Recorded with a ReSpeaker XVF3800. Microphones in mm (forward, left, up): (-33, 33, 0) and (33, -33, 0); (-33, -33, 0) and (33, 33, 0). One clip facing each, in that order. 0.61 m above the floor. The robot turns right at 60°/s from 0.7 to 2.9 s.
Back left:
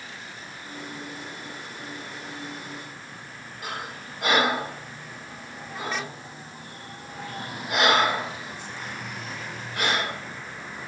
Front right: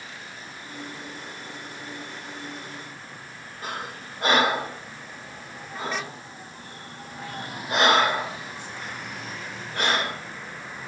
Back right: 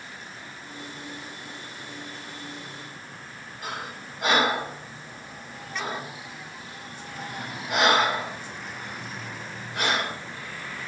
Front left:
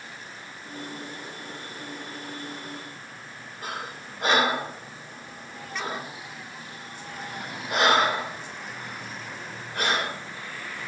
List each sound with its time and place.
3.6 s breathing: 5° left, 3 m